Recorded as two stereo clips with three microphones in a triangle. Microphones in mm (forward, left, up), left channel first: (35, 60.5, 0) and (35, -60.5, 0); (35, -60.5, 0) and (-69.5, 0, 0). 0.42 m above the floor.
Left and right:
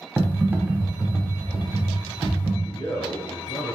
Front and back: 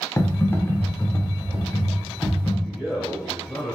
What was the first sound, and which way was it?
Typing on a keyboard, 45° right.